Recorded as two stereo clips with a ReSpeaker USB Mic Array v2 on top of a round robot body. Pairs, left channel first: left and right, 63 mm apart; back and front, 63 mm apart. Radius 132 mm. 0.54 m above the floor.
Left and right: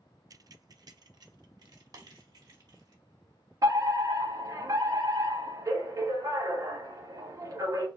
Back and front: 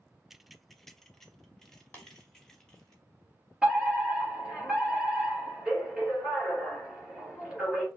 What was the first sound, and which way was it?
Keys jangling, 80° right.